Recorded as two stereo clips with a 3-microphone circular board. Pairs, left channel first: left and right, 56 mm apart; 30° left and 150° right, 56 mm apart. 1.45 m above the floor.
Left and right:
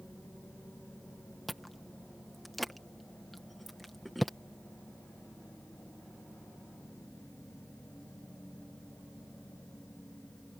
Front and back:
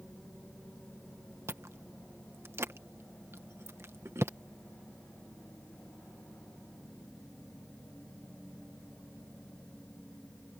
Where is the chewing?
Straight behind.